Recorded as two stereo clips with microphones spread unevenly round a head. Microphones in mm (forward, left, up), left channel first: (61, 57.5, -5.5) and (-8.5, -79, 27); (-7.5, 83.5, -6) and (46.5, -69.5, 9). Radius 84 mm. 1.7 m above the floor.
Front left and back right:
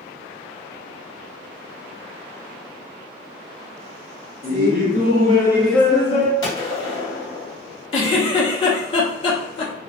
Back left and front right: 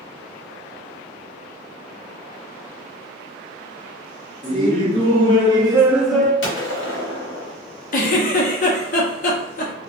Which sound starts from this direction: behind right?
Laughter, at 4.4 s.